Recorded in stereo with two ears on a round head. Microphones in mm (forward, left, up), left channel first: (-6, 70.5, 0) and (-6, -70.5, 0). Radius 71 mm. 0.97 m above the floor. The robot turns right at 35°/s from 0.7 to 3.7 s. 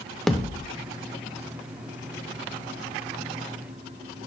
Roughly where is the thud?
Centre.